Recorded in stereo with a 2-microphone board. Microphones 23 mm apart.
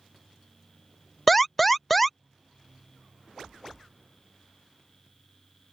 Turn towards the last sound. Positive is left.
turn(degrees=5)  # may be behind; listen again after turning